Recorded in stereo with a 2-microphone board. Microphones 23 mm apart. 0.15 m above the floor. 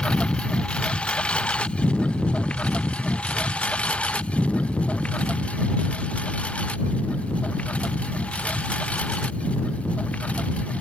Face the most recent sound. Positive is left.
turn(degrees=65)  # may be behind; listen again after turning